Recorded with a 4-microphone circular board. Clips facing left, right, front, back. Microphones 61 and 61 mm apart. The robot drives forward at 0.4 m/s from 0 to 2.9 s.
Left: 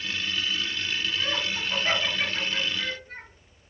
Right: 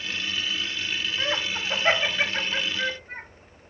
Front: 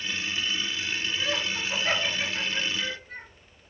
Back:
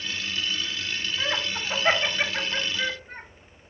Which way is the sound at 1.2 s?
135° right.